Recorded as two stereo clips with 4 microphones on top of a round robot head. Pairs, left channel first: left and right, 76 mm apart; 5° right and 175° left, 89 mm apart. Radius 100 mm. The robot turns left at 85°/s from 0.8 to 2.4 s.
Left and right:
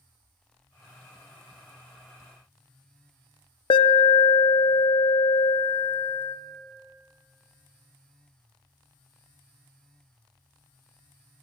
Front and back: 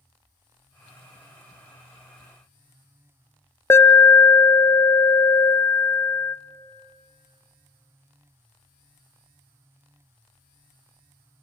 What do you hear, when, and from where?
3.7 s an alarm: 60° left, 0.6 m